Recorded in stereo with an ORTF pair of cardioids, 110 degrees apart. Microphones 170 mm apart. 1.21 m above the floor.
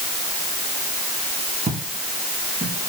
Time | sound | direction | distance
1.7 | footsteps | 35° right | 5.5 m